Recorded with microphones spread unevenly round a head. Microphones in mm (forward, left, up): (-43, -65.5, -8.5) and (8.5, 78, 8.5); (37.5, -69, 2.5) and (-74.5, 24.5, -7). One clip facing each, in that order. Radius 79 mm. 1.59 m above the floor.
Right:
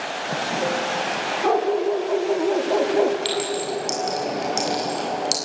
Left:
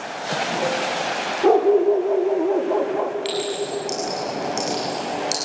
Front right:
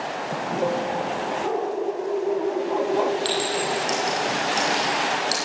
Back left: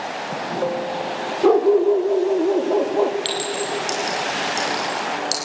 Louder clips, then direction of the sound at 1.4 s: Left 6 dB, back left 14 dB; 120° left.